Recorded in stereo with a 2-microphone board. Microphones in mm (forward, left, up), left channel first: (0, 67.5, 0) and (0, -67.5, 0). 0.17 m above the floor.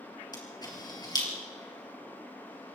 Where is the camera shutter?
30° left (ahead or behind), 3.5 m.